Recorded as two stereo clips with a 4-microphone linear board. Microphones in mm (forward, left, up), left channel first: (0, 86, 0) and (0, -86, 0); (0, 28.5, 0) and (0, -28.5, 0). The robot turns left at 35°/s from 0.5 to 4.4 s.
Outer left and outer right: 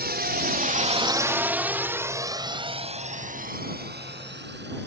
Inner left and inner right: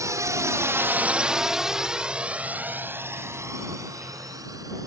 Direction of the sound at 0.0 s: 70° right (ahead or behind).